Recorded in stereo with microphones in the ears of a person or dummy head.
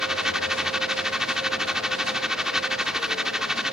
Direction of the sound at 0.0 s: 5° right (ahead or behind).